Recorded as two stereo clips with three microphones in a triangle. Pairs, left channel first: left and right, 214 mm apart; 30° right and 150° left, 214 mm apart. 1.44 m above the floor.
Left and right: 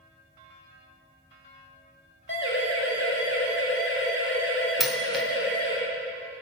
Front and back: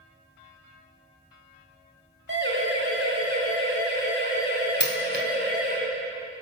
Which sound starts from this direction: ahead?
A dropped coin, at 4.8 s.